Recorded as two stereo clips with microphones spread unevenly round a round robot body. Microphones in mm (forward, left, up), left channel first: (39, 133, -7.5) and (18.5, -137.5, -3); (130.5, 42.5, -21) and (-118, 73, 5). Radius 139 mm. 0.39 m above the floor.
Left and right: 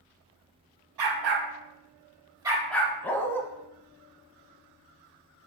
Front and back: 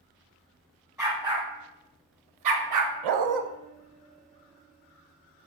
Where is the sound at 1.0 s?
105° right, 1.3 m; by 2.9 s 160° left, 1.0 m.